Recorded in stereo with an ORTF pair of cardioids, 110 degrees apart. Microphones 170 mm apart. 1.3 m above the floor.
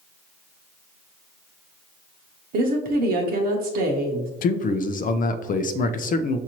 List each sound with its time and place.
2.5 s a woman speaking: 65° right, 0.9 m
4.4 s a man speaking: 55° left, 0.5 m